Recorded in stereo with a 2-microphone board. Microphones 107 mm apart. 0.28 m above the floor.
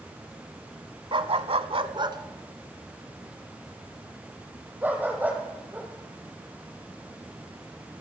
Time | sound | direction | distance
1.1 | a dog barking | 55° right (ahead or behind) | 1.0 m